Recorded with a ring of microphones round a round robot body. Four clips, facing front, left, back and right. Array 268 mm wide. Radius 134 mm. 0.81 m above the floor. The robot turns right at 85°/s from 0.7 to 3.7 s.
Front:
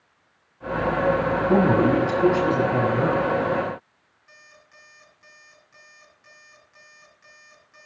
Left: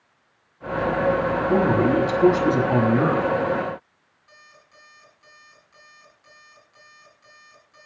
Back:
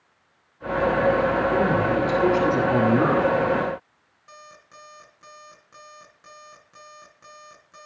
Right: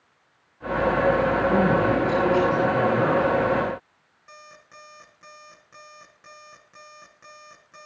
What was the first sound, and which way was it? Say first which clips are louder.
A man speaking: left 5 dB, front 3 dB; 15° left.